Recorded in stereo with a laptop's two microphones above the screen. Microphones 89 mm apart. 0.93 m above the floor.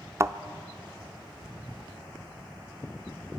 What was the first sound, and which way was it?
A thud, 30° right (ahead or behind).